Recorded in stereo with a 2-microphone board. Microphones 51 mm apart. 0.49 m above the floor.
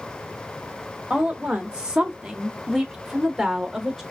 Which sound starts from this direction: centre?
A woman speaking, at 1.1 s.